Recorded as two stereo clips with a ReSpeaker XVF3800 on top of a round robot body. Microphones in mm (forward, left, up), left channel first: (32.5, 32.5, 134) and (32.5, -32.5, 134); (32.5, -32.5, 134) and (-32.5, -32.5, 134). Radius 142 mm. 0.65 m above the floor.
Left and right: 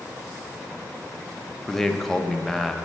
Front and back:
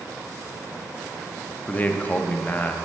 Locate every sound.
1.7 s a man speaking: 10° left, 0.6 m